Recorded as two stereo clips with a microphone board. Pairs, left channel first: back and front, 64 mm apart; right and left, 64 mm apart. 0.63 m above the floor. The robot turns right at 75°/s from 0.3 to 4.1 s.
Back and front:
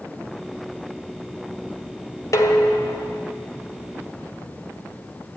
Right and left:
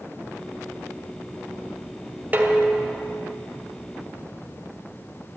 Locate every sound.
2.3 s dishes clattering: 150° left, 1.3 m; by 3.2 s 145° right, 1.3 m